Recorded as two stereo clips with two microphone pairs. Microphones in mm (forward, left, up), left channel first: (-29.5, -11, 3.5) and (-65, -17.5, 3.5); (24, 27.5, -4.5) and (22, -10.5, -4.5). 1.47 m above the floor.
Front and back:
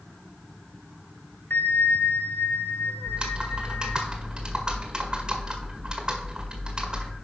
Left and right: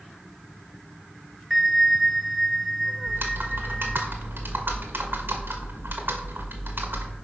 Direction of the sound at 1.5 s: Straight ahead.